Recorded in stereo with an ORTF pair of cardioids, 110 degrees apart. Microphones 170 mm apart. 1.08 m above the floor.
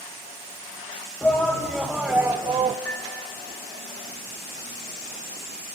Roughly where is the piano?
Ahead.